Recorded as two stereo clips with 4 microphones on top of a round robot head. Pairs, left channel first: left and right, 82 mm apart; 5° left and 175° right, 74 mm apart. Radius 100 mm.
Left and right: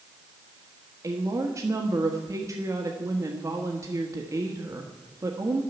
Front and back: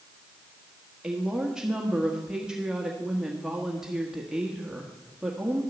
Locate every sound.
1.0 s a woman speaking: 100° right, 1.5 m